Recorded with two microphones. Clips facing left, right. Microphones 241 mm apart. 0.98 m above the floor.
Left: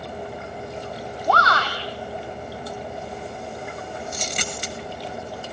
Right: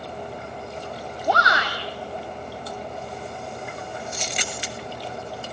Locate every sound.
1.3 s a shout: 15° right (ahead or behind), 2.5 m
4.1 s a dropped coin: 45° left (ahead or behind), 1.4 m